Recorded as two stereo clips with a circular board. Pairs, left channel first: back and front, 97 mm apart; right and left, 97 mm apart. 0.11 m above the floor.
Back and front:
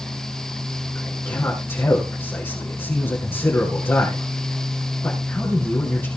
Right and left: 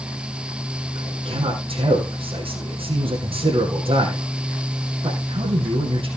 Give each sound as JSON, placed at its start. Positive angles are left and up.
{"t": 0.9, "sound": "a man speaking", "azimuth_deg": 110, "distance_m": 4.5}